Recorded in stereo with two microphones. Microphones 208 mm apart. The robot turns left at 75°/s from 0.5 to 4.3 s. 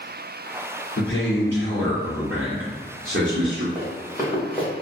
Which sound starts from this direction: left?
A man speaking, at 1.0 s.